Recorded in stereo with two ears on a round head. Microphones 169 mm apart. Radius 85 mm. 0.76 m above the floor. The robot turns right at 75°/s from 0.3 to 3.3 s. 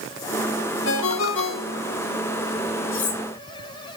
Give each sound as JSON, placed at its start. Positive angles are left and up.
{"t": 0.8, "sound": "a ringtone", "azimuth_deg": 65, "distance_m": 1.2}
{"t": 2.9, "sound": "cutlery clinking", "side_deg": 75, "distance_m": 1.4}